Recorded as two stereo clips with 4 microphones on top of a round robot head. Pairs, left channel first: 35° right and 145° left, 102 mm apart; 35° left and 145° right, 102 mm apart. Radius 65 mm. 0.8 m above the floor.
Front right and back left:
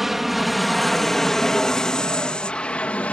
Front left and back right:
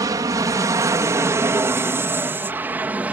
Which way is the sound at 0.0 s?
130° right.